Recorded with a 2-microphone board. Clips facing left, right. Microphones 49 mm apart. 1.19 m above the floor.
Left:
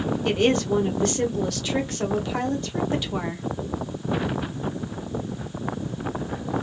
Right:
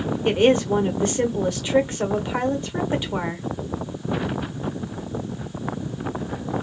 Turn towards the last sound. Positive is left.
turn(degrees=-25)  # may be behind; listen again after turning